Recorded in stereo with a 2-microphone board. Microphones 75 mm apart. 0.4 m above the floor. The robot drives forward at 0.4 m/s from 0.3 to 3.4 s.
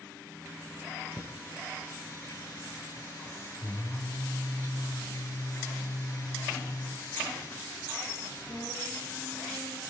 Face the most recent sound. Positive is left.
turn(degrees=40)  # may be behind; listen again after turning